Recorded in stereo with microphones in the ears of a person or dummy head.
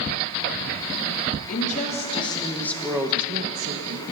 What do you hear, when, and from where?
1.5 s a woman speaking: 40° left (ahead or behind), 2.5 m; by 4.0 s 75° right (ahead or behind), 1.5 m